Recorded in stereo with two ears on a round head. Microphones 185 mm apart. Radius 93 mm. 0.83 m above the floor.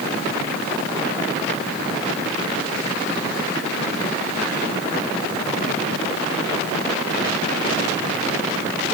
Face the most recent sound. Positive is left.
No sound to turn to.